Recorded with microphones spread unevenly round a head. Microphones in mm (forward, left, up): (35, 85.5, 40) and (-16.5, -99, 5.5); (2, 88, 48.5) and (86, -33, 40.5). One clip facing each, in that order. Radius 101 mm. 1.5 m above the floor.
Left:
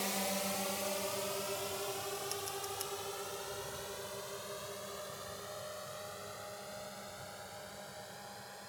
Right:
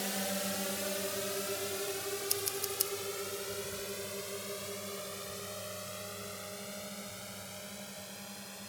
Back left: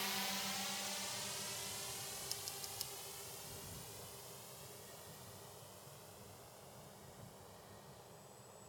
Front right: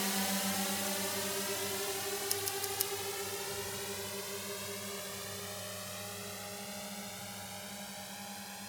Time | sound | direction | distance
0.0 | a drone | 25° right | ?
2.3 | scissors | 75° right | ?